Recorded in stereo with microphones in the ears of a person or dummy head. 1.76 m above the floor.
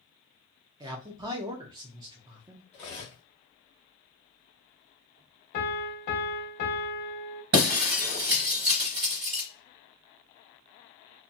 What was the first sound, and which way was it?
A man speaking, 25° right (ahead or behind).